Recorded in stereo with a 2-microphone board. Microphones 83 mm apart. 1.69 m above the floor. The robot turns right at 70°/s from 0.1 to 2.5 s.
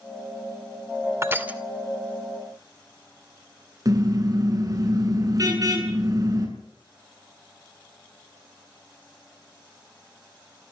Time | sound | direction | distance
1.2 | crushing | 35° right (ahead or behind) | 2 m
3.9 | a car horn | 45° right (ahead or behind) | 8.5 m